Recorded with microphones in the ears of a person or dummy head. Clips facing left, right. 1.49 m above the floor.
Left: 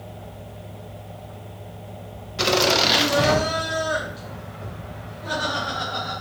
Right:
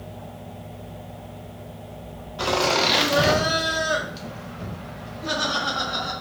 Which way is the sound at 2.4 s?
30° left (ahead or behind).